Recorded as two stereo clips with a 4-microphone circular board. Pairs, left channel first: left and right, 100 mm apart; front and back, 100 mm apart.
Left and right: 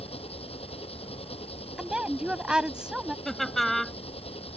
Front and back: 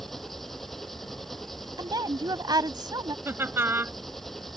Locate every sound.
0.0 s an engine running: 85° left
1.8 s a woman speaking: 170° right
3.2 s laughter: 175° left